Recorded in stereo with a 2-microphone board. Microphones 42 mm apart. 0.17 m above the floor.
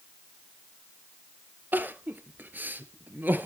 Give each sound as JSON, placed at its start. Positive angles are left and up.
{"t": 1.7, "sound": "crying", "side_deg": -45, "distance_m": 0.8}